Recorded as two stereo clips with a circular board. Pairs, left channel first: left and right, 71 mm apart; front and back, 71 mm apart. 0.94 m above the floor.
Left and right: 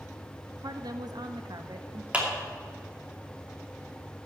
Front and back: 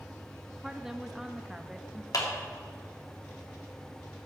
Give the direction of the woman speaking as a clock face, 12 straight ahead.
3 o'clock.